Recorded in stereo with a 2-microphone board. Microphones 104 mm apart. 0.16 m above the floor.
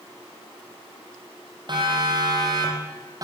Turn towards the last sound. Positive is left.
turn(degrees=-35)  # may be behind; listen again after turning